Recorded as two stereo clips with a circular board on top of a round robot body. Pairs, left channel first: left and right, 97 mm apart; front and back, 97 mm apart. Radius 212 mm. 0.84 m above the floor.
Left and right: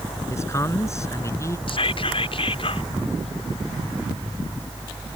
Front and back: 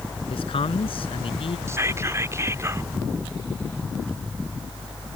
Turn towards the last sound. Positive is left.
turn(degrees=120)